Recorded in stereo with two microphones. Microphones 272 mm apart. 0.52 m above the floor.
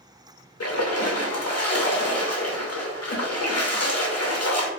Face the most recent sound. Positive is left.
turn(degrees=70)  # may be behind; listen again after turning